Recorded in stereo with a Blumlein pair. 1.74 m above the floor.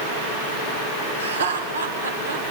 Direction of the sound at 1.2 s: 70° right.